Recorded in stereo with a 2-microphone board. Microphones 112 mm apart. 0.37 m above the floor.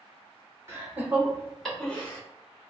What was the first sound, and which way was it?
Laughter, 25° right (ahead or behind).